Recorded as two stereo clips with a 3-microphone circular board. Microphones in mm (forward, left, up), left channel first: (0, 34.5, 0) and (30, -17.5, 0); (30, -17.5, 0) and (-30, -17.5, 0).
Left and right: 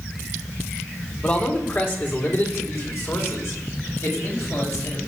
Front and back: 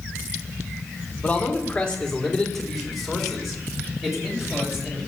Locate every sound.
1.2 s a man speaking: 65° left, 2 m; by 5.0 s 95° left, 6 m